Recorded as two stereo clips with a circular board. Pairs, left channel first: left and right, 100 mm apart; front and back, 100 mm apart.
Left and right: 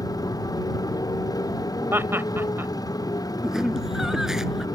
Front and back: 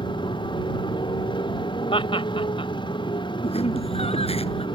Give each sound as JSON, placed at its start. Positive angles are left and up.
{"t": 0.0, "sound": "a motorcycle", "azimuth_deg": 35}
{"t": 1.9, "sound": "laughter", "azimuth_deg": -25}
{"t": 3.4, "sound": "laughter", "azimuth_deg": -5}